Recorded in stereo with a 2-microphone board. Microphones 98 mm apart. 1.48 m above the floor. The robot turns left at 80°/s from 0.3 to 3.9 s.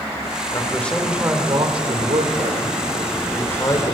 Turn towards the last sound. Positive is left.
turn(degrees=125)